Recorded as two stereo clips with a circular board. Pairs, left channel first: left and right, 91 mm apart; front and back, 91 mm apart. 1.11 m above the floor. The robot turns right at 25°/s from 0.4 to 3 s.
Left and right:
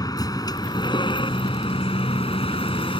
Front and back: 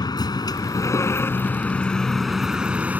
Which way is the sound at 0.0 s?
45° left.